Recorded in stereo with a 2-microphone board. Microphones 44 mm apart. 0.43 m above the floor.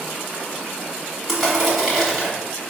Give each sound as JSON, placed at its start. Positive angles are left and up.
{"t": 1.3, "sound": "crushing", "side_deg": -10, "distance_m": 1.6}